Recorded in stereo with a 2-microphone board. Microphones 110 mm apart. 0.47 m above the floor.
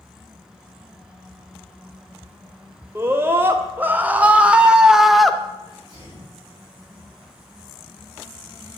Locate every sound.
3.0 s a scream: 20° right (ahead or behind), 2 m; by 5.4 s centre (ahead or behind), 1.3 m
5.6 s a sneeze: 35° left (ahead or behind), 9.5 m